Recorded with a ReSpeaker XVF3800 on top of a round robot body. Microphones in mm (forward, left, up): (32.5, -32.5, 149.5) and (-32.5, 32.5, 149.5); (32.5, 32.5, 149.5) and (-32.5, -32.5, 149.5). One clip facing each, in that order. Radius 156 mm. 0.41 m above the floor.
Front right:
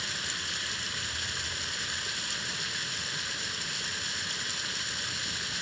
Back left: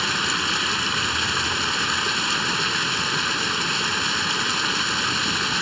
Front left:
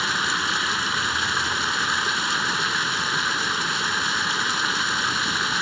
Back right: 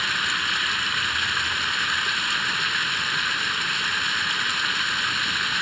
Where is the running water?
110° left.